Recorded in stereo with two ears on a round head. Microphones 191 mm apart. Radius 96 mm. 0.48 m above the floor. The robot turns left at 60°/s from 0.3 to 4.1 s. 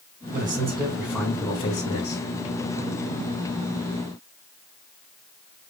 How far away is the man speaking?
About 4 m.